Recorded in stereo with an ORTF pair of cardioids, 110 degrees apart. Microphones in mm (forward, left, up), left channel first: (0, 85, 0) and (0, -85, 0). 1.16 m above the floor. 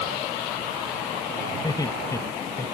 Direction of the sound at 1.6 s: 20° left.